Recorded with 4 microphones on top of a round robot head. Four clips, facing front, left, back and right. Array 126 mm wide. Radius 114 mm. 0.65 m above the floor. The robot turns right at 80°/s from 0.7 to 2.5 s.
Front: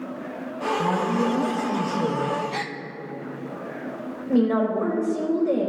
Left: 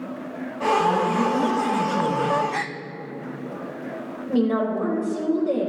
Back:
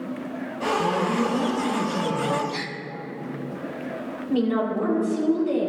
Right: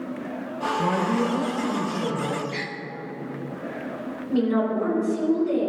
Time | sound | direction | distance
0.8 | a woman speaking | 90° right | 3.5 m
2.5 | a gasp | 70° left | 0.6 m
4.3 | a woman speaking | 35° left | 4 m